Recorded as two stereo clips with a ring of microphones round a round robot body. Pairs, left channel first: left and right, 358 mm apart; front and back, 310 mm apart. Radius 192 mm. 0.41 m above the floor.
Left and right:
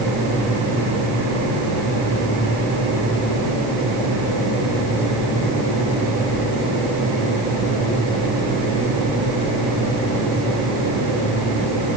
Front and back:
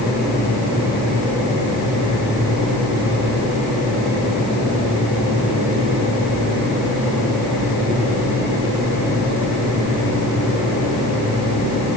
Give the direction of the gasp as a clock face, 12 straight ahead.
I don't hear a gasp.